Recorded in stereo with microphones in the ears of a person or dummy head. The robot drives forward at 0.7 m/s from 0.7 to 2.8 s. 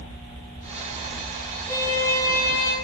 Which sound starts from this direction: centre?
A violin, at 1.7 s.